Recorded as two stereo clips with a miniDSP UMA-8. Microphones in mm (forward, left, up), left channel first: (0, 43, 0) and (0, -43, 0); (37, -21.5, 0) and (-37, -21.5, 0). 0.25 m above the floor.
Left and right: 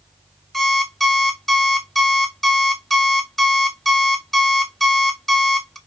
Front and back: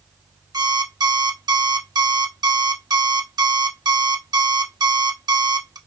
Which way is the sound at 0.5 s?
175° left.